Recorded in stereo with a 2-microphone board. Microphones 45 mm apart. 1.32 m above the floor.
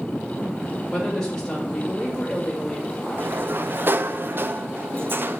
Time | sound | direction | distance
0.9 | a woman speaking | 15° left (ahead or behind) | 3 m
3.2 | a sliding door | 50° right (ahead or behind) | 0.5 m